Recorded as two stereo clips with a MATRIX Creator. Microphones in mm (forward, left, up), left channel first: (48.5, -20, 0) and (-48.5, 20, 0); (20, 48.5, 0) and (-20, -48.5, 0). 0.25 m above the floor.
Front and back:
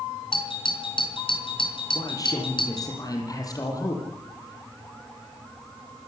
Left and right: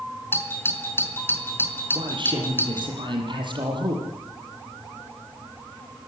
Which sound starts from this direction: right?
A man speaking, at 1.9 s.